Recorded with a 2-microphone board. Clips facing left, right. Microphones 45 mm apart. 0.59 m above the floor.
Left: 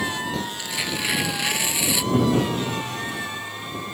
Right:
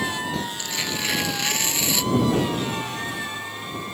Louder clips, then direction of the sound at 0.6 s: Left 1 dB; 10° left (ahead or behind).